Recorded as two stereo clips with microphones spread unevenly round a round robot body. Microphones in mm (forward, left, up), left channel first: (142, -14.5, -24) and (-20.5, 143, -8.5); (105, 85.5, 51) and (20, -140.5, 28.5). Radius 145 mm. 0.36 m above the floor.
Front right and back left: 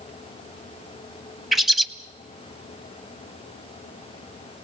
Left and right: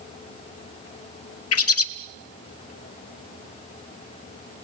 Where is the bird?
45° left, 1.1 m.